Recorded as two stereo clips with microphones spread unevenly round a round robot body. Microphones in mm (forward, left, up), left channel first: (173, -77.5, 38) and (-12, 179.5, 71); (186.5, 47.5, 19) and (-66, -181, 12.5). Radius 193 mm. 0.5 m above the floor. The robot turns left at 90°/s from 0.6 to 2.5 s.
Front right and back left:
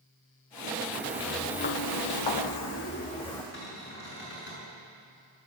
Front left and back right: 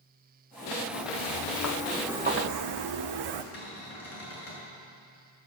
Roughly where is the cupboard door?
Ahead.